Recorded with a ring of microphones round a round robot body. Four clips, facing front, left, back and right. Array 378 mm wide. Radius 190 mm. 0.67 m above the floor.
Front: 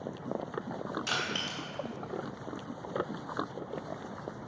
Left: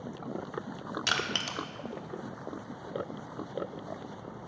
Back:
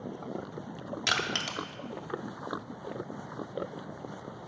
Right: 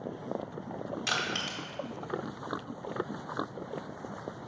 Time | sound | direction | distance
1.1 | crushing | 140° left | 0.7 m